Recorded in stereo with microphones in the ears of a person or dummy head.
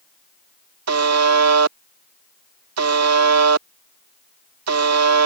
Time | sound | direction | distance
0.9 | a buzzer | 85° right | ?